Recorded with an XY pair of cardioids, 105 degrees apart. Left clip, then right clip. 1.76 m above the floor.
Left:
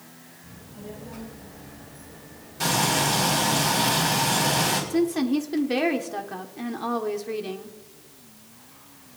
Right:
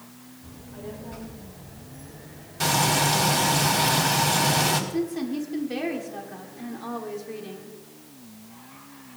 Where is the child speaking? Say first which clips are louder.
Right 3 dB; 55° right, 3.5 m; by 3.6 s 75° right, 4.5 m.